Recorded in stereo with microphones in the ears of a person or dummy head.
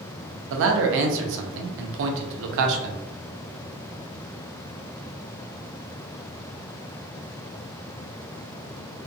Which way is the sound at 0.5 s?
70° right (ahead or behind).